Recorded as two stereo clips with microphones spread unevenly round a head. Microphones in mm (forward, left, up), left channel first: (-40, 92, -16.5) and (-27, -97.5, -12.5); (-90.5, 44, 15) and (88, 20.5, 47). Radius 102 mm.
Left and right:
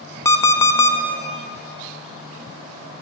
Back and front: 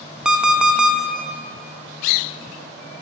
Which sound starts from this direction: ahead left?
An alarm clock, at 0.2 s.